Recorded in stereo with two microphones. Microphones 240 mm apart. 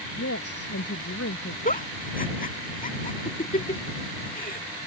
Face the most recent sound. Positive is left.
turn(degrees=35)  # may be behind; listen again after turning